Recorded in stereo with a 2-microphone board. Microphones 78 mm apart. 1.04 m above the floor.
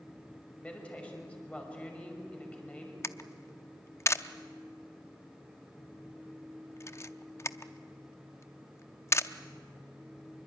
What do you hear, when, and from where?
0.6 s a woman speaking: 15° left (ahead or behind), 5.5 m
3.0 s a camera shutter: 35° left (ahead or behind), 0.6 m